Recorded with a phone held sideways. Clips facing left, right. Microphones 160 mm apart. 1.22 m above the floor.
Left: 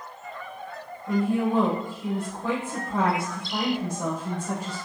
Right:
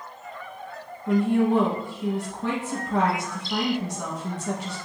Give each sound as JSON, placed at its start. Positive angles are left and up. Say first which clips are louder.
{"t": 1.1, "sound": "a woman speaking", "louder": "right 3 dB", "side_deg": -85, "distance_m": 1.0}